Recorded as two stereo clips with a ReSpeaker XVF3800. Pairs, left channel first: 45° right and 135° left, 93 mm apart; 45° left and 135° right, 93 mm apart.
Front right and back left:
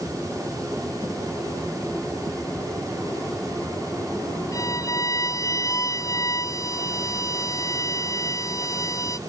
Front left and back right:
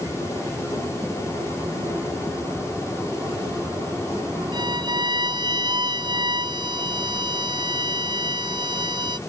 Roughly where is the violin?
Right.